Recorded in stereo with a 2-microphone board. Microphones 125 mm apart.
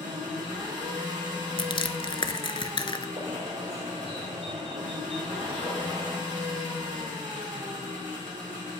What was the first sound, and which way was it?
An engine running, 85° right.